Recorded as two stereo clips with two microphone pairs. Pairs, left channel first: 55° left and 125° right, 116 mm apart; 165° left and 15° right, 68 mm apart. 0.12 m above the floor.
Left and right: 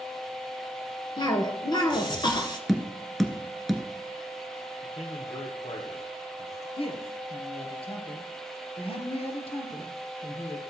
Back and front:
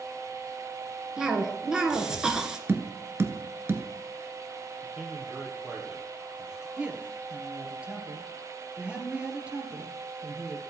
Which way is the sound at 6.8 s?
55° left.